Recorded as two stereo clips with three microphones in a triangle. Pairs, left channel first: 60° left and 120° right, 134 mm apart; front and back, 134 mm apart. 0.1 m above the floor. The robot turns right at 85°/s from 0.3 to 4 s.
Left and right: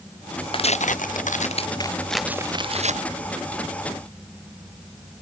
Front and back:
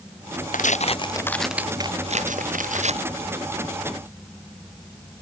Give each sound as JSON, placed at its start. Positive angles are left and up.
{"t": 0.5, "sound": "tearing paper", "azimuth_deg": 10}